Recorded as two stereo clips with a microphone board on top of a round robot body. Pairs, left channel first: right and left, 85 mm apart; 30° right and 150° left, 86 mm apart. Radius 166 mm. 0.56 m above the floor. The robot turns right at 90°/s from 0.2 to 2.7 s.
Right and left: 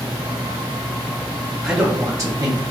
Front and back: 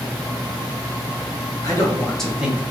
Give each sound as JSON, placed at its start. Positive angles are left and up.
{"t": 1.6, "sound": "a man speaking", "azimuth_deg": 0, "distance_m": 1.3}